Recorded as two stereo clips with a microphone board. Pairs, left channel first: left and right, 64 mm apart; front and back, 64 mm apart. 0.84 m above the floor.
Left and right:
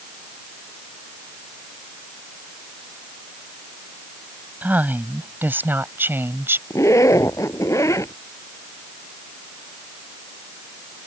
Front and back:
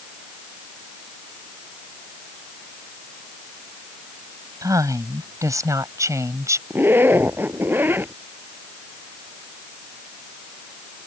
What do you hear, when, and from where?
4.6 s a woman speaking: 155° right; by 6.6 s 140° right
6.7 s a zipper: 125° left